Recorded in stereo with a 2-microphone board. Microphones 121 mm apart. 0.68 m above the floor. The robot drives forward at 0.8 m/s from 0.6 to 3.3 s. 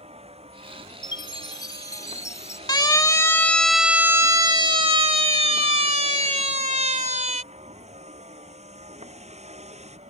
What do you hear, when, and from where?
0.0 s a vehicle: 55° right (ahead or behind); by 10.1 s 65° right (ahead or behind)
1.0 s a chime: 40° left (ahead or behind); by 2.6 s 25° left (ahead or behind)
2.7 s a siren: 35° left (ahead or behind); by 7.4 s 75° right (ahead or behind)